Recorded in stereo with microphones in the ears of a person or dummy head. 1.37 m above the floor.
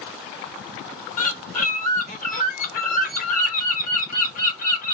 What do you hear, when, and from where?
1.2 s a bird: 35° left (ahead or behind), 0.8 m